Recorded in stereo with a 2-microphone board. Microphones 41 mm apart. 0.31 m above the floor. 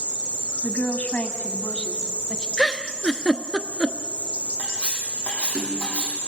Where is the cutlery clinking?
30° left (ahead or behind), 9 m.